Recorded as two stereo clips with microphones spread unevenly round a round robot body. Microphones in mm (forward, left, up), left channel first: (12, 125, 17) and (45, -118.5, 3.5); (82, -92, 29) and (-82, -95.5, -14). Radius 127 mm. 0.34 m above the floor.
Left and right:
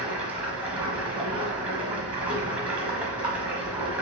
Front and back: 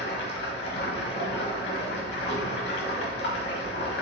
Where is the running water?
Straight ahead, 1.2 m.